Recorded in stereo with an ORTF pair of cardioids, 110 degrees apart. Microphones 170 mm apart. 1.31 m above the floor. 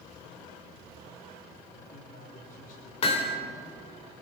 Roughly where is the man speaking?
Ahead left.